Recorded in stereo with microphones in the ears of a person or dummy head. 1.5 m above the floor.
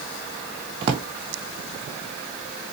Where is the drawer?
20° right (ahead or behind), 0.6 m.